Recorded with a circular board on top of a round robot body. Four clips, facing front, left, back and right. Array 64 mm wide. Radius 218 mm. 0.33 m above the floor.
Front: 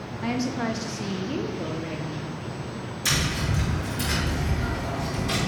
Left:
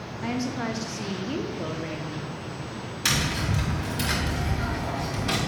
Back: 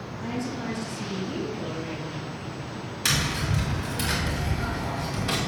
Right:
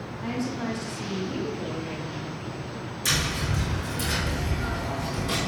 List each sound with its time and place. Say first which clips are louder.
0.2 s a woman speaking: left 1 dB, front 5 dB; 30° left, 1.5 m; by 2.3 s 105° left, 1.6 m
3.0 s tapping: left 1 dB, even; 130° left, 2.5 m